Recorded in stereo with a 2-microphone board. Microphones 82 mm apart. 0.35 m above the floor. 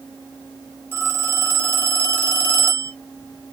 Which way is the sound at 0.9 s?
25° right (ahead or behind).